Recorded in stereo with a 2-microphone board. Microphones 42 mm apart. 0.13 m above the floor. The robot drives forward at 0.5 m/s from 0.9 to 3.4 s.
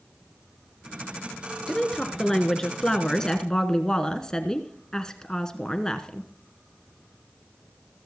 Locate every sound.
1.7 s a woman speaking: 10° left (ahead or behind), 1.8 m; by 6.3 s 15° left (ahead or behind), 1.3 m